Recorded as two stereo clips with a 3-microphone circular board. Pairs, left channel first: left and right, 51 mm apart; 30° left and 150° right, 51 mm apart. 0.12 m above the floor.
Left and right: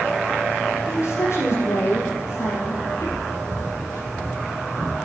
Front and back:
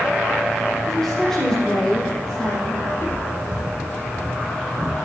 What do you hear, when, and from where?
0.9 s a woman speaking: 110° left, 6.5 m; by 2.8 s 105° left, 5.5 m
2.9 s footsteps: 80° left, 4 m; by 5.0 s 105° left, 4 m